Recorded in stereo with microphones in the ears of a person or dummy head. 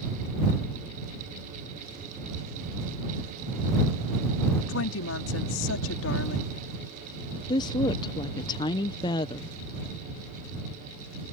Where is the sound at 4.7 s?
80° left.